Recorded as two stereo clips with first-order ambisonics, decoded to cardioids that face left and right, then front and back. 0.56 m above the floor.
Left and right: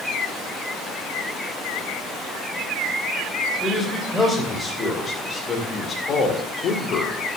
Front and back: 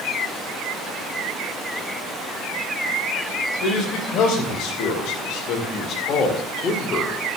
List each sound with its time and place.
3.6 s a man speaking: 5° left, 3 m; by 7.2 s 60° left, 1.8 m